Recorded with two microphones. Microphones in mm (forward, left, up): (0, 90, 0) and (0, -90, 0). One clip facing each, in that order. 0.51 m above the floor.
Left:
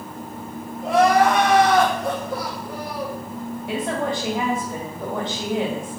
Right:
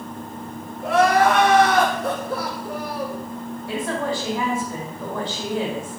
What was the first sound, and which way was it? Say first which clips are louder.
Crying: left 1 dB; 75° right (ahead or behind).